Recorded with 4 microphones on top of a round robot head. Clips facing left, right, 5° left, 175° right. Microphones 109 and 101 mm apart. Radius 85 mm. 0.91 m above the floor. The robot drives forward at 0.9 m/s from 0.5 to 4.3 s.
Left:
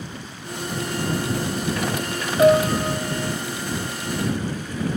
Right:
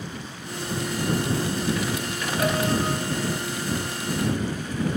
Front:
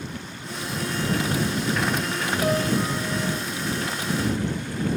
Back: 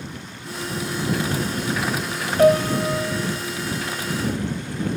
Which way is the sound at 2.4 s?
155° left.